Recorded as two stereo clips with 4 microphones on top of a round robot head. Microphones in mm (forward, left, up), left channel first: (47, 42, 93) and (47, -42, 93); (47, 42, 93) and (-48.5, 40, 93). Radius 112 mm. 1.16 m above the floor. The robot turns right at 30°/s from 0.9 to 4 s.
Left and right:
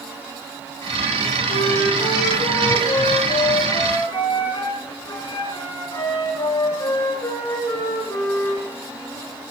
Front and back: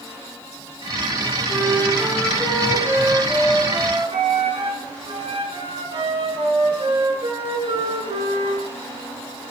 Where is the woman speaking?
I don't hear a woman speaking.